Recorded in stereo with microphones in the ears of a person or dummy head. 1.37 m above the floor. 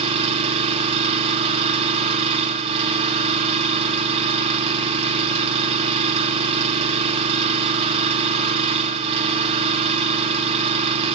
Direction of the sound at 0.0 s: 35° right (ahead or behind).